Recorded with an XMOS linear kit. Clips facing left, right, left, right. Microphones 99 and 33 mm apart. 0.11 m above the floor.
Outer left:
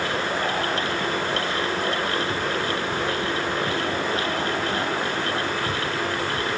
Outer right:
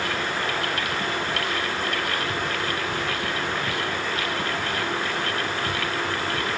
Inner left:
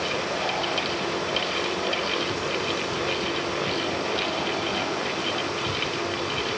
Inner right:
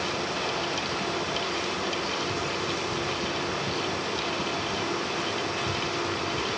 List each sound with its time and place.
Only background noise.